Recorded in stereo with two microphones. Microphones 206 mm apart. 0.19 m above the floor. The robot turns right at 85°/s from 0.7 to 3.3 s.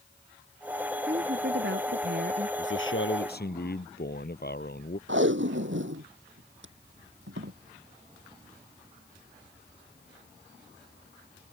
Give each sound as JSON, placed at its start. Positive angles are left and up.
{"t": 1.1, "sound": "a woman speaking", "azimuth_deg": -155}
{"t": 2.6, "sound": "a man speaking", "azimuth_deg": 65}
{"t": 5.1, "sound": "tape being pulled", "side_deg": -70}